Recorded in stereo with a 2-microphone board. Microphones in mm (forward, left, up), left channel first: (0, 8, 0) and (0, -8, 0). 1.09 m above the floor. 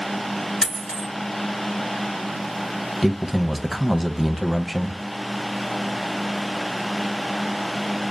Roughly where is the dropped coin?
Left.